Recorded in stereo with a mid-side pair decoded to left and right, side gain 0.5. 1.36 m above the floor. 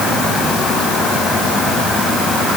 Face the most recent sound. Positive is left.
No sound to turn to.